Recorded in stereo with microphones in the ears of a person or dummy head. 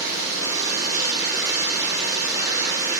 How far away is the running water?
About 4 m.